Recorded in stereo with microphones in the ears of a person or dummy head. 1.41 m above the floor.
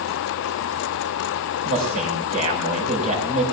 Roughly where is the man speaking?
Right.